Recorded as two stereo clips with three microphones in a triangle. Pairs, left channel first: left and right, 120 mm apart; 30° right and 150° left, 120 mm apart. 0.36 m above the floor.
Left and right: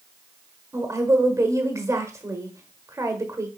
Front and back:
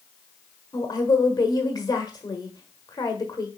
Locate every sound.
0.7 s a woman speaking: 50° right, 1.4 m